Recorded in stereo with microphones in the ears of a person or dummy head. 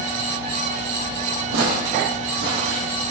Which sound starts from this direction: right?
Footsteps, at 1.5 s.